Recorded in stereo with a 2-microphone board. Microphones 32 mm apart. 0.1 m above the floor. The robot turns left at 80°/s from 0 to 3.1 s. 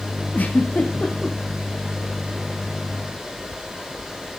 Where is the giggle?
75° left (ahead or behind), 4.5 m; by 1.4 s 15° left (ahead or behind), 4.5 m.